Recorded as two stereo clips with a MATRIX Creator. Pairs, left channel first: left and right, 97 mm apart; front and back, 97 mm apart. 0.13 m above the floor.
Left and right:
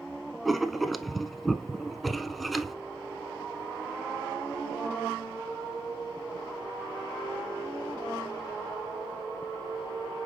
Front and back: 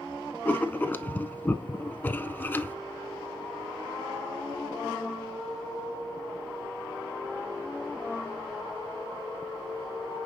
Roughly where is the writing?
Ahead.